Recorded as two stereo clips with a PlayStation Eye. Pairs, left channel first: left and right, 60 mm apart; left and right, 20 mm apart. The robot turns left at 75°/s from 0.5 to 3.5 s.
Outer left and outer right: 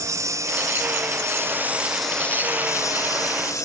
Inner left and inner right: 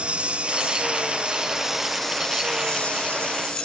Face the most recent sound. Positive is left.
turn(degrees=60)  # may be behind; listen again after turning